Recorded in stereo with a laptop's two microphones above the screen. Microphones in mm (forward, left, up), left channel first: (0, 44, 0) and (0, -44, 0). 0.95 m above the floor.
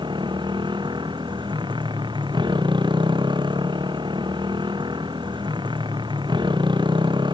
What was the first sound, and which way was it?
A motorcycle, 60° right (ahead or behind).